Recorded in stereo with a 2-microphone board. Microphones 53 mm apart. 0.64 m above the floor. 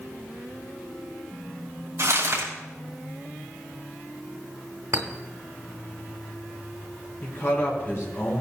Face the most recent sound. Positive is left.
turn(degrees=45)  # may be behind; listen again after turning